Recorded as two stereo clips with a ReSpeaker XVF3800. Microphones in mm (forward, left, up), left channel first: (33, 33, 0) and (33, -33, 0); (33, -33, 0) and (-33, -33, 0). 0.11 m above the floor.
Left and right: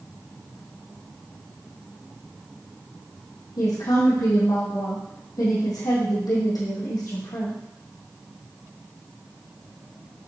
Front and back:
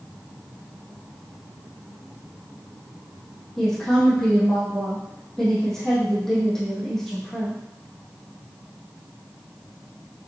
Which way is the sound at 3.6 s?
80° left.